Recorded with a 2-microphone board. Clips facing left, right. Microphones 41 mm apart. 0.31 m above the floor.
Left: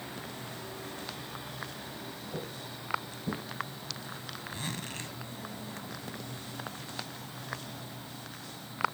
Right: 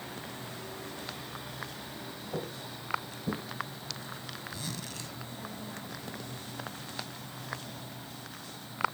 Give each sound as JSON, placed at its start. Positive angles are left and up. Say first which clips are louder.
{"t": 2.3, "sound": "footsteps", "louder": "right 4 dB", "side_deg": -30, "distance_m": 2.5}
{"t": 4.5, "sound": "a zipper", "louder": "left 4 dB", "side_deg": 40, "distance_m": 2.0}